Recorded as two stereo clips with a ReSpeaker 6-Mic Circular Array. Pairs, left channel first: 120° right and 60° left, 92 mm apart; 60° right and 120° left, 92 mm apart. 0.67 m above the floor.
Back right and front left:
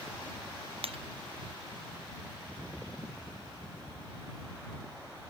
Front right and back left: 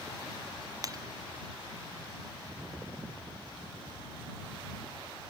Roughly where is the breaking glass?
Left.